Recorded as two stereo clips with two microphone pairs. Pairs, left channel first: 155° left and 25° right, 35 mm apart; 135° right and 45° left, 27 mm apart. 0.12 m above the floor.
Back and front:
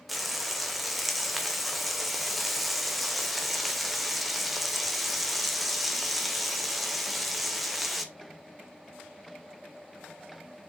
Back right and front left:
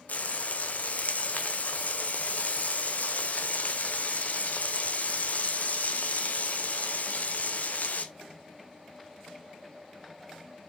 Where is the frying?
115° right, 1.3 m.